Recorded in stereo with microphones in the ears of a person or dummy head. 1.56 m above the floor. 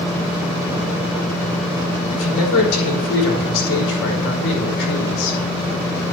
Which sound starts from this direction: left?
A man speaking, at 2.1 s.